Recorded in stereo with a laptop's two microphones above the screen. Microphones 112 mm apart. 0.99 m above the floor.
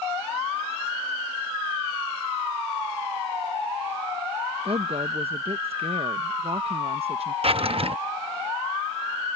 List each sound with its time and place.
4.7 s a woman speaking: 60° right (ahead or behind)
7.4 s a drawer: 55° right (ahead or behind)